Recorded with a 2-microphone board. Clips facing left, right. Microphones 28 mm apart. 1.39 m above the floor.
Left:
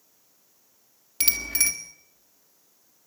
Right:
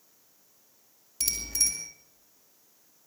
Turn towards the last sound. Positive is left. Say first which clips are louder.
# left 4 dB
turn(degrees=65)  # may be behind; listen again after turning